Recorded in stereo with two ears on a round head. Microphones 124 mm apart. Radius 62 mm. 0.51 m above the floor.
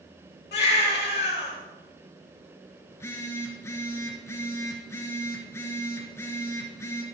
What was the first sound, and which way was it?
A baby crying, 85° left.